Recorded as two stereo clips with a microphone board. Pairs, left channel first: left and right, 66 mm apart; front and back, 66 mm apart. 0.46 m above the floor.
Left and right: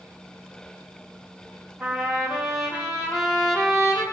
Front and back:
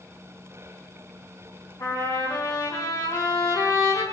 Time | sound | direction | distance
1.8 | a trumpet | 15° right | 7 m